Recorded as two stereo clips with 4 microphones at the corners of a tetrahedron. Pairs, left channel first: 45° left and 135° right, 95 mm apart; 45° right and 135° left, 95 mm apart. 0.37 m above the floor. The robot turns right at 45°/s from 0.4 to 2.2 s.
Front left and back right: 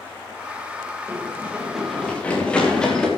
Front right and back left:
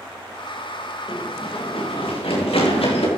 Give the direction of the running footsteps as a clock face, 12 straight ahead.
2 o'clock.